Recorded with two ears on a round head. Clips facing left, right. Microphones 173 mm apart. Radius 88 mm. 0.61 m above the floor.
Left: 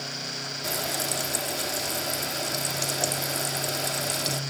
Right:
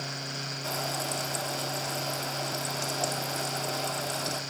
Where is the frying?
20° left (ahead or behind), 1.3 m.